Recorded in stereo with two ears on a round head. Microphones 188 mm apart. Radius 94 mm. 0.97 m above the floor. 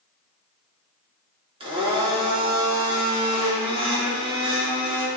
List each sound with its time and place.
1.6 s a blender: 25° right (ahead or behind), 2.5 m